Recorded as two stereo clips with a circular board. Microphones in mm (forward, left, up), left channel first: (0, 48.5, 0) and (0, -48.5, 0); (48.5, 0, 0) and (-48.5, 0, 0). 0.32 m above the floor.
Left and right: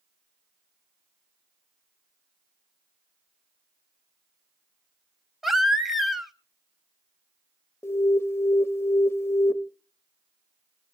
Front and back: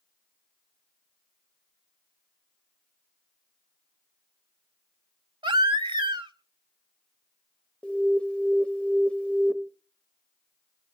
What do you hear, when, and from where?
5.4 s a baby crying: 175° right, 1.0 m
7.8 s an alarm: 65° left, 0.7 m